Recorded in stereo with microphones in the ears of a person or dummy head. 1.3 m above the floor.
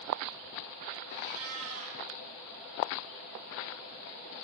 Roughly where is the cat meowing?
Right.